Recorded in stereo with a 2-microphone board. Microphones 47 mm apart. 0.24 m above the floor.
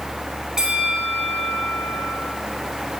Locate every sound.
0.6 s a bell: 10° right (ahead or behind), 2.5 m